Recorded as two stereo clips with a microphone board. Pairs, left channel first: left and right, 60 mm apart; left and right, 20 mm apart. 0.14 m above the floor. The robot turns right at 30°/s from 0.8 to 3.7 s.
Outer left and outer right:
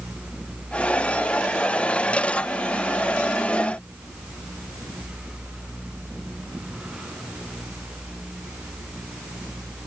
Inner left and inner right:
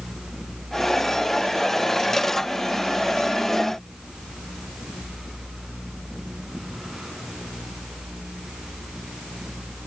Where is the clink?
I don't hear a clink.